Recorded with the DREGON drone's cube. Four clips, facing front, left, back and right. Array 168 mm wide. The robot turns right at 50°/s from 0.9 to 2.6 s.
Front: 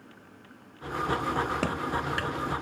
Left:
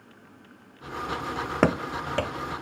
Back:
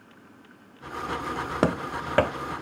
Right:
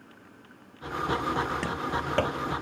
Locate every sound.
1.6 s running footsteps: 120° left, 0.8 m; by 2.6 s 130° right, 0.9 m